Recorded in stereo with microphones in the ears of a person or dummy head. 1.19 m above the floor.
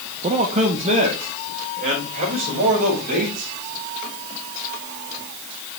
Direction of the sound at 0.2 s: 25° right (ahead or behind).